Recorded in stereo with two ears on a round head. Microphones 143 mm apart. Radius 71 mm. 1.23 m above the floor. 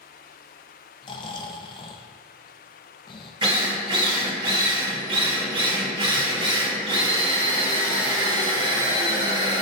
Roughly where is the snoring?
Left.